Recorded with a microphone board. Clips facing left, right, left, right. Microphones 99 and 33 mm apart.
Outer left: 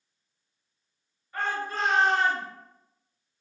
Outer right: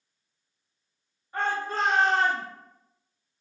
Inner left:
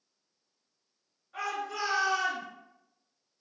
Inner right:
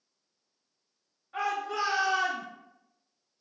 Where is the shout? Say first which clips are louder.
Outer right 2 dB, inner right 4 dB; 25° right (ahead or behind), 1.3 m; by 2.5 s 35° right (ahead or behind), 1.6 m.